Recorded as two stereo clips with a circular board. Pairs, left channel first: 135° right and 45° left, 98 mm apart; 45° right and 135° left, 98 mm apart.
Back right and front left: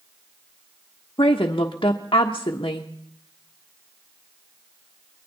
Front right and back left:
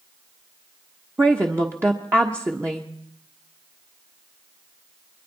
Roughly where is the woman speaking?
Behind.